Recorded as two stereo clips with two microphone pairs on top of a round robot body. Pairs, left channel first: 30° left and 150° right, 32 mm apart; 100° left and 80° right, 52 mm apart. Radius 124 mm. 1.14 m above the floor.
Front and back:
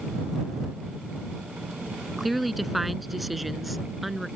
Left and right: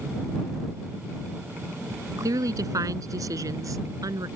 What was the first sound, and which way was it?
A woman speaking, 65° right.